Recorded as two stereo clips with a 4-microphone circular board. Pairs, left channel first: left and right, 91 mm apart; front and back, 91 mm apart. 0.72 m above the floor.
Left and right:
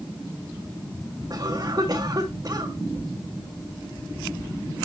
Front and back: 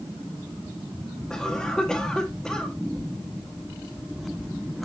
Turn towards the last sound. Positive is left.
turn(degrees=-80)